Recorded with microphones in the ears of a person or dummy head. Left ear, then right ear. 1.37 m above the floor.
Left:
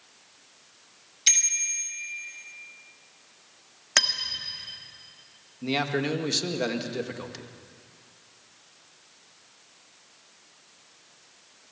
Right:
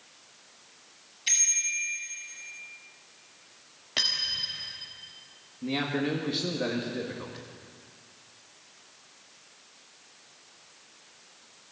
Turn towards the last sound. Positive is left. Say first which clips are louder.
# left 3 dB
turn(degrees=90)